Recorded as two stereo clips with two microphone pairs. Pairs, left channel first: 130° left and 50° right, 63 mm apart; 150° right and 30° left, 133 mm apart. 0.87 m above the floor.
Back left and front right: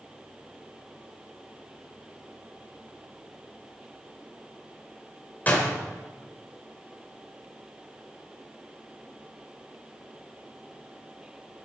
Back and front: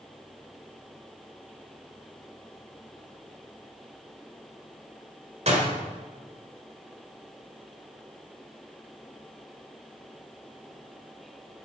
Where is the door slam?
65° left, 2 m.